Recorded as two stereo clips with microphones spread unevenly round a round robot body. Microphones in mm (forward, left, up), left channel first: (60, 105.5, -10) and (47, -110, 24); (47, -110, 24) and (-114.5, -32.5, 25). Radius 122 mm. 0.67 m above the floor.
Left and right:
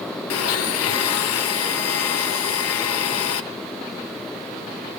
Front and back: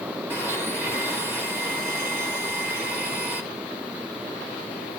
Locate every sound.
0.3 s a blender: 75° left, 0.8 m